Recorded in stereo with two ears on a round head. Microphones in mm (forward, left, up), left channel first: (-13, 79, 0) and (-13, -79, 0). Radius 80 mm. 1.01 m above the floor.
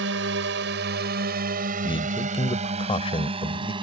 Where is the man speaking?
30° left (ahead or behind).